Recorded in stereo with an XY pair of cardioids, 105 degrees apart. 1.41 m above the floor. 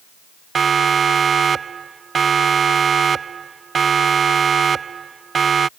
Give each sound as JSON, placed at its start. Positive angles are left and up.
{"t": 0.6, "sound": "a siren", "azimuth_deg": -45}